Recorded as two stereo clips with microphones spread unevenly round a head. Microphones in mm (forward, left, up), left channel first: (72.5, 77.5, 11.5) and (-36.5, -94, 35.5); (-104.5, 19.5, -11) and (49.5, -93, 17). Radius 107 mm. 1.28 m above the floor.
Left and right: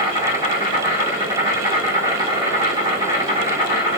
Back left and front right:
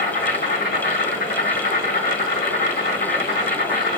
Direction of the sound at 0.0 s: 165° left.